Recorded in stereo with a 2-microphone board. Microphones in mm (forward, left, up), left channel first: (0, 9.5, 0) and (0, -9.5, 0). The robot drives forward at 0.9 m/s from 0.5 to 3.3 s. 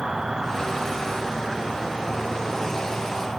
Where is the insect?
40° right (ahead or behind), 1.8 m; by 3.4 s 20° right (ahead or behind), 3.5 m.